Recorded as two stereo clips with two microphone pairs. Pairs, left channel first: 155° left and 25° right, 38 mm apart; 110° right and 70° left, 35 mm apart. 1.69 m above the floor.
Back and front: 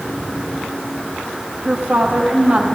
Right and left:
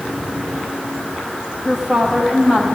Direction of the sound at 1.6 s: 35° right.